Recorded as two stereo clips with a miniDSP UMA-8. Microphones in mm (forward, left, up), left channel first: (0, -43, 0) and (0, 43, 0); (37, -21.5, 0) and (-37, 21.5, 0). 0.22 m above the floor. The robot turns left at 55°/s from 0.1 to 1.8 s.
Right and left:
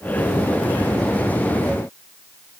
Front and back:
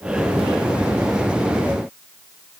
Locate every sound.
Only background noise.